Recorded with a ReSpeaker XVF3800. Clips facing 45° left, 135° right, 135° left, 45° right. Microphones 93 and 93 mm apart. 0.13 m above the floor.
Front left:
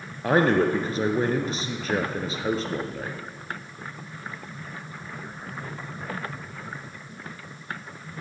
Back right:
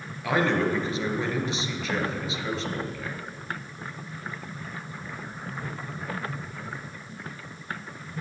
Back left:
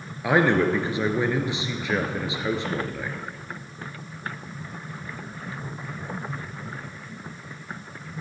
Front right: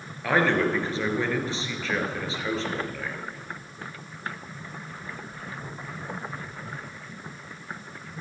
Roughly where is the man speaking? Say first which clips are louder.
Front left 4 dB, back left 3 dB; ahead left.